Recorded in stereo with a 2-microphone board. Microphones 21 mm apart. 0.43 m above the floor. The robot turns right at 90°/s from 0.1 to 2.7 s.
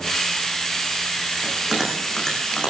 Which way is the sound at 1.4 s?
50° right (ahead or behind).